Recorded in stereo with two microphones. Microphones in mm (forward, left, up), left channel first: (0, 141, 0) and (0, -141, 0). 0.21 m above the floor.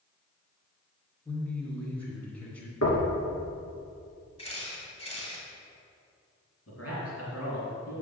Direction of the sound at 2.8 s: 65° left (ahead or behind).